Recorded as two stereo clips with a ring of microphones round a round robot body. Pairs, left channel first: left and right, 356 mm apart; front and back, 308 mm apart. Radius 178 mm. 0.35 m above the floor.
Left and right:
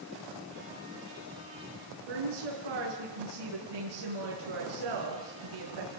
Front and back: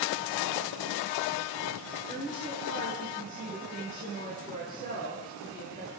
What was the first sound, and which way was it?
A woman speaking, 80° right.